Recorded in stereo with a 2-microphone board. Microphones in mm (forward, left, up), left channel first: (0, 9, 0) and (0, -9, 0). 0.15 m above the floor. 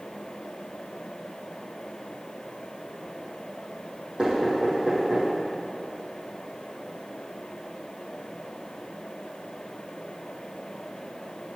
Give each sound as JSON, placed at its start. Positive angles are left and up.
{"t": 4.2, "sound": "knocking", "side_deg": -60, "distance_m": 4.5}